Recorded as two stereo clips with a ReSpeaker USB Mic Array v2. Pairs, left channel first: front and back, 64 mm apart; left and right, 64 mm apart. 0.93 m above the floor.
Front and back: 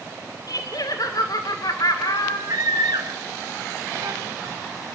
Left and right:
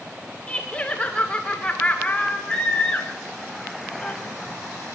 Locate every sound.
0.5 s laughter: 15° left, 2.5 m
2.5 s a scream: 165° left, 2.5 m